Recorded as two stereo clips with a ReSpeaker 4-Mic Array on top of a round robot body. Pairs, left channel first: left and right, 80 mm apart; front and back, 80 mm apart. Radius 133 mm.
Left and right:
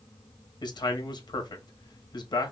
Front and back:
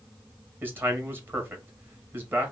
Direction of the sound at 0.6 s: 115° left.